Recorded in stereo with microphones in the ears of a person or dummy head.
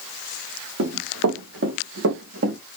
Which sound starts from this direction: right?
Running footsteps, at 0.8 s.